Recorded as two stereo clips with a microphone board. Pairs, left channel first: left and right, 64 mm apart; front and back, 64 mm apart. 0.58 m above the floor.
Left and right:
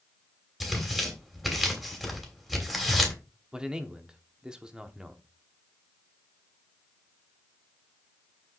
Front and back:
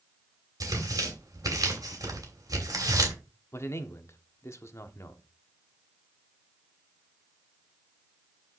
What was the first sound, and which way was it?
Tearing paper, straight behind.